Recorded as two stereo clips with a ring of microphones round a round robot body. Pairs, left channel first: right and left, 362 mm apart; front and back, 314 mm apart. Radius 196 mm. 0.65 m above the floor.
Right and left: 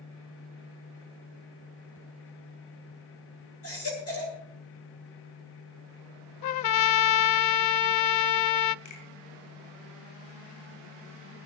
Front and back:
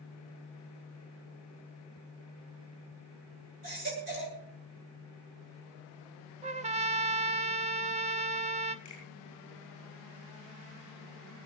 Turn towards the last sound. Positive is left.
turn(degrees=-75)